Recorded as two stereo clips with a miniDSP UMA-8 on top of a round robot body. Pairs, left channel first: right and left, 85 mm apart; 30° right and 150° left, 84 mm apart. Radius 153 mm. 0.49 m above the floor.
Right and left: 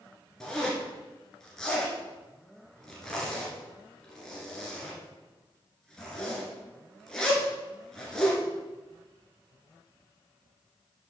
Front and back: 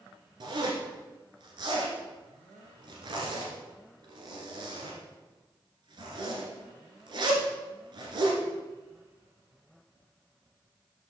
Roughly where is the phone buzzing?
No phone buzzing in this recording.